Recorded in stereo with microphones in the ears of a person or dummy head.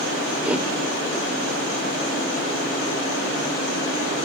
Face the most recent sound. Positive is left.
turn(degrees=-10)  # may be behind; listen again after turning